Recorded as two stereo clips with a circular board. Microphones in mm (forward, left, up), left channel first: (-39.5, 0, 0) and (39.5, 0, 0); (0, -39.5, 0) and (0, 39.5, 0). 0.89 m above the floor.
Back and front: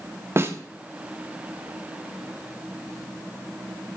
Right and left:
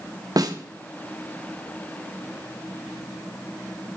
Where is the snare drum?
55° left, 0.8 m.